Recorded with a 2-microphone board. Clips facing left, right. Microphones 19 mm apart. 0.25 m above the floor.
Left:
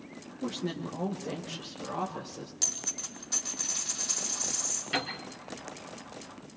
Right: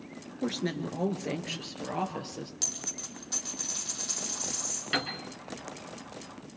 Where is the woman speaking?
70° right (ahead or behind), 3 m; by 2.5 s 75° right (ahead or behind), 4.5 m.